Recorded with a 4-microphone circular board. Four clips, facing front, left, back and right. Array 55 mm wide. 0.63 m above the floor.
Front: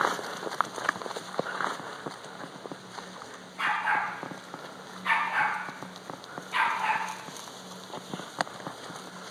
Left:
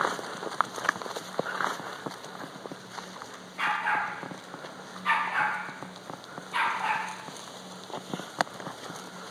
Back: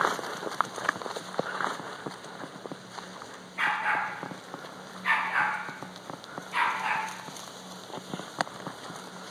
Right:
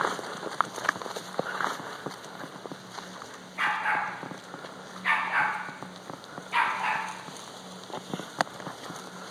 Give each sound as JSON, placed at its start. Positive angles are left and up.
{"t": 3.6, "sound": "a dog barking", "azimuth_deg": -135, "distance_m": 3.5}